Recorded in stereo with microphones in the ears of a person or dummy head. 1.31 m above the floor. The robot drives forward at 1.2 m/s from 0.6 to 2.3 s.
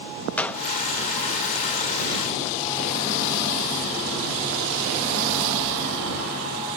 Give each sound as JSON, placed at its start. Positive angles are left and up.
{"t": 0.4, "sound": "a gunshot", "side_deg": 15, "distance_m": 0.6}